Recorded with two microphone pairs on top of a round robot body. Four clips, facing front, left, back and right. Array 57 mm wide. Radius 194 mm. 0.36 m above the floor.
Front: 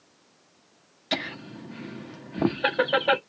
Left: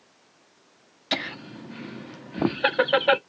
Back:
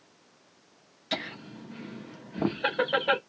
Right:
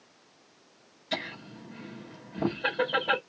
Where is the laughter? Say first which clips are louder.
Left 5 dB, front 4 dB; 65° left, 1.2 m.